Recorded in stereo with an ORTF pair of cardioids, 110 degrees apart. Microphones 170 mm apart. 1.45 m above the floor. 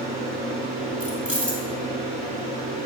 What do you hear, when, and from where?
0.0 s a fan: 60° right, 3 m
1.0 s keys jangling: 10° right, 3 m